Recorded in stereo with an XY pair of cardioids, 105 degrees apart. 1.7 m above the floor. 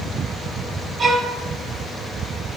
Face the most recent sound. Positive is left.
turn(degrees=-35)